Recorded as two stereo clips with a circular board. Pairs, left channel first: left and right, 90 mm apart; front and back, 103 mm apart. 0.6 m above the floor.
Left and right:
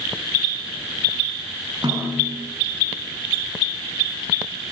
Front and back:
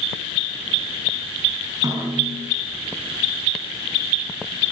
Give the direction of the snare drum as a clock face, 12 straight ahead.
4 o'clock.